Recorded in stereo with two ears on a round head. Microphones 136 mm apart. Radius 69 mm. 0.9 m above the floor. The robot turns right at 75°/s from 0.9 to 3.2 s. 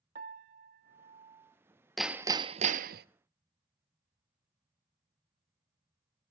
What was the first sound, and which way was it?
A piano, 60° right.